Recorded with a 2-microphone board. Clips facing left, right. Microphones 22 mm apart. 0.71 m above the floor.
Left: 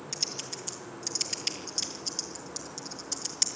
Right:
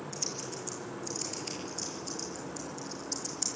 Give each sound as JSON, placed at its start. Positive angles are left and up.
{"t": 0.1, "sound": "typing on a keyboard", "side_deg": 80, "distance_m": 4.5}